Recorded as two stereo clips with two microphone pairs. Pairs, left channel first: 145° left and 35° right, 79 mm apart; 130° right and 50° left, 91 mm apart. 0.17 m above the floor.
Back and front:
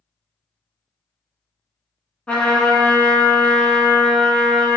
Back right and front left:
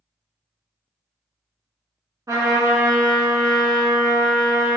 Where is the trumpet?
75° left, 0.6 m.